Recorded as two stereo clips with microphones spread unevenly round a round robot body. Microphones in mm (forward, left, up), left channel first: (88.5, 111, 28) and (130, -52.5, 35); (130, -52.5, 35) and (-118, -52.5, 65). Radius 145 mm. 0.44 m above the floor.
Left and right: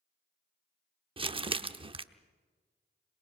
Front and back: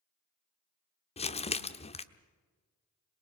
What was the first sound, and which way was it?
Crumpling, 35° right.